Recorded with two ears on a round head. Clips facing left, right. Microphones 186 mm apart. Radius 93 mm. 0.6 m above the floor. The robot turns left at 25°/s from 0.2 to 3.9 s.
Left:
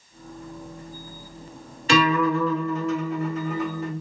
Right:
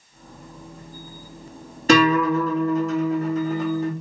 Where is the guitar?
85° right, 1.3 m; by 3.9 s 135° right, 1.3 m.